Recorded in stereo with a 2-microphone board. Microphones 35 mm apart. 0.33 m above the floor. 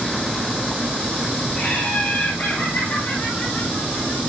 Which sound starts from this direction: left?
Laughter, at 1.6 s.